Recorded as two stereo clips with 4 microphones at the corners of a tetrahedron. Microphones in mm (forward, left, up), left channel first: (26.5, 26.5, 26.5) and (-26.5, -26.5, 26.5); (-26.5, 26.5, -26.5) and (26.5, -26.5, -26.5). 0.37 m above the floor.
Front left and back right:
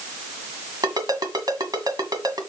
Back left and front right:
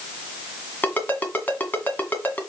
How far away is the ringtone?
About 1.8 m.